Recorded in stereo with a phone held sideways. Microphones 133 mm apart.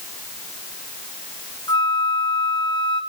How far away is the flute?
About 1.2 m.